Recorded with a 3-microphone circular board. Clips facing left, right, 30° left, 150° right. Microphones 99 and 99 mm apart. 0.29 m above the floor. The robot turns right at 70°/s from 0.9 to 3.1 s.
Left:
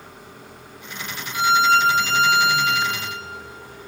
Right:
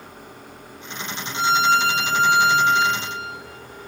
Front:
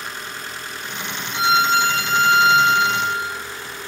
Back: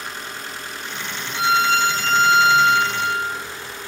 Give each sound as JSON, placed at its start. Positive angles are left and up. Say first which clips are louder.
{"t": 1.3, "sound": "a violin", "louder": "left 2 dB, front 1 dB", "azimuth_deg": 45, "distance_m": 1.3}